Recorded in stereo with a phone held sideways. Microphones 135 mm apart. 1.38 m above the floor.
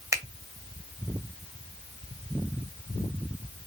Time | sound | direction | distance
0.1 | a finger snap | 25° right (ahead or behind) | 0.8 m